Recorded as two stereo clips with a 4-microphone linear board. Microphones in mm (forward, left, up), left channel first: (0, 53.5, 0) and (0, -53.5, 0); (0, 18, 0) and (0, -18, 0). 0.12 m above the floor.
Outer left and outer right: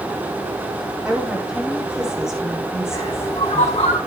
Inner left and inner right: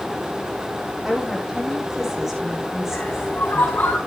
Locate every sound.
1.1 s a woman speaking: 5° right (ahead or behind), 5.5 m
2.9 s a bird: 75° left (ahead or behind), 3 m